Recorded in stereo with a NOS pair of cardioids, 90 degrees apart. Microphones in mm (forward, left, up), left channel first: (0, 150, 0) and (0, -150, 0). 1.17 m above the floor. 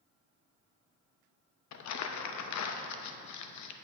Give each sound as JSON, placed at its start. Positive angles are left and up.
{"t": 1.7, "sound": "crumpling", "azimuth_deg": 70, "distance_m": 0.8}